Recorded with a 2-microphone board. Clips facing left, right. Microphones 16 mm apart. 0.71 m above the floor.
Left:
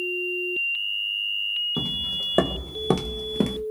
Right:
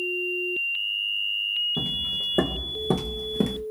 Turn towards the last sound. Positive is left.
turn(degrees=10)  # may be behind; listen again after turning